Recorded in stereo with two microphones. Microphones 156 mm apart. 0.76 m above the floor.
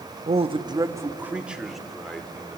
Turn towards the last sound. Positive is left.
turn(degrees=5)  # may be behind; listen again after turning